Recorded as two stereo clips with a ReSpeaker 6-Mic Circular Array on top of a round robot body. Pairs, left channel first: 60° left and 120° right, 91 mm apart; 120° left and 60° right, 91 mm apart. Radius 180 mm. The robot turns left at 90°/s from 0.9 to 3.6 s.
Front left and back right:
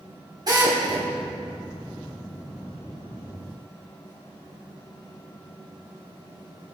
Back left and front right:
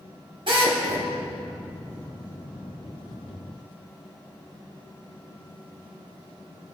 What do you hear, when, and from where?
0.5 s a drill: 75° right, 3.5 m; by 1.1 s 95° right, 3.5 m